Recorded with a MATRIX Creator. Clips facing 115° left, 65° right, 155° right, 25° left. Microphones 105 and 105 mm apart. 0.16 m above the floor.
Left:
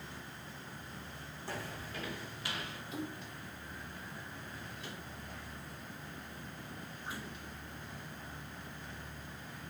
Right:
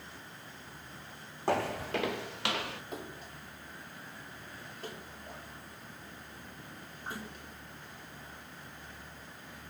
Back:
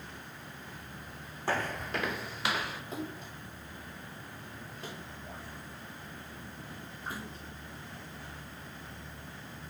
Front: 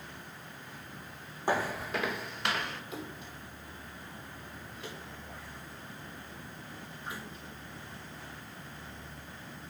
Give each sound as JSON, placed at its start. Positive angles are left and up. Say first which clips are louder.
{"t": 1.5, "sound": "footsteps", "louder": "right 13 dB, front 2 dB", "azimuth_deg": -55, "distance_m": 0.5}
{"t": 2.9, "sound": "a splash", "louder": "left 1 dB, back 3 dB", "azimuth_deg": -105, "distance_m": 4.0}